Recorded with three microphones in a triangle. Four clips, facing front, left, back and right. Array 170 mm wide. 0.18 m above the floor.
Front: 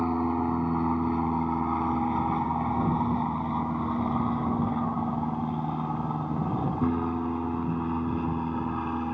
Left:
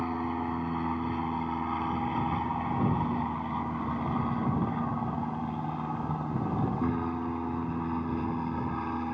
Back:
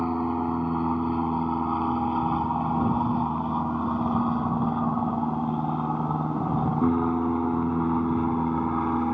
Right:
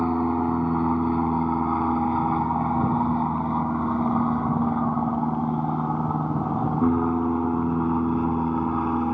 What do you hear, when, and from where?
0.0 s an aircraft: 95° right; by 9.2 s 125° right